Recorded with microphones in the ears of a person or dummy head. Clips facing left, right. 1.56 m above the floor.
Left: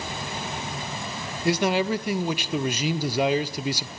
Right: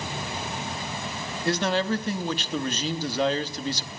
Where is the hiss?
I don't hear a hiss.